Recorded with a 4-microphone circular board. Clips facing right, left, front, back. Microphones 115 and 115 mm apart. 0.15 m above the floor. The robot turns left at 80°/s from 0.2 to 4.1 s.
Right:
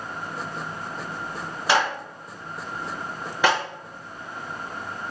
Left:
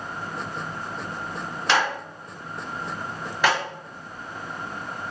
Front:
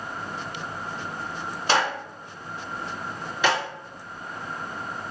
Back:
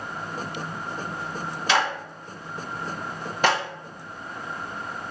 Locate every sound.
1.7 s a clap: 15° right, 1.9 m; by 3.6 s 170° right, 1.9 m